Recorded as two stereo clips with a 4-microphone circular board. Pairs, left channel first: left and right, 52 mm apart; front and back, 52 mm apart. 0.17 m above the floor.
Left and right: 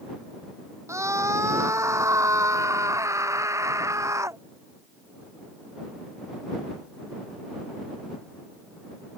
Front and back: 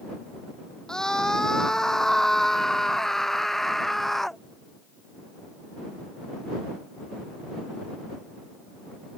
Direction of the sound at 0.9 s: 75° right.